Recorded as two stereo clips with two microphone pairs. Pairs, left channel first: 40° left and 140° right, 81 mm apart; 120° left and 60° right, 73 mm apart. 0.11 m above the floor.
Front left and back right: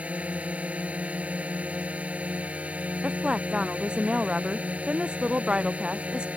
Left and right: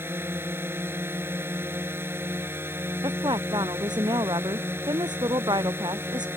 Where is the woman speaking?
60° right.